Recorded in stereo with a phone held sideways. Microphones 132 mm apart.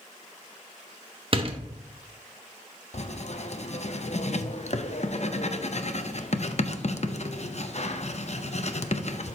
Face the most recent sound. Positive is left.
turn(degrees=55)  # may be behind; listen again after turning